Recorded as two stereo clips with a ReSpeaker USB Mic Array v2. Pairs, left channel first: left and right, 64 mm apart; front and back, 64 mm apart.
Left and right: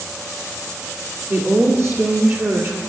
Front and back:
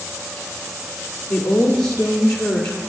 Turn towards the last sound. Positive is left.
turn(degrees=-80)